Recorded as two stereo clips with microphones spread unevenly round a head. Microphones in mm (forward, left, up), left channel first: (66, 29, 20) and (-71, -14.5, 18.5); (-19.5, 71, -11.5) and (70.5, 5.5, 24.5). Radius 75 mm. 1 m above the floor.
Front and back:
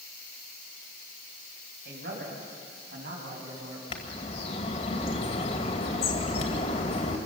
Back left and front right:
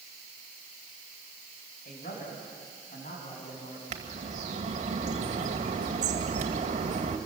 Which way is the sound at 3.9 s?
30° right.